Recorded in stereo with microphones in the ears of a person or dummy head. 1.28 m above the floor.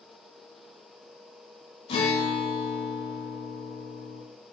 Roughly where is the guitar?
Left.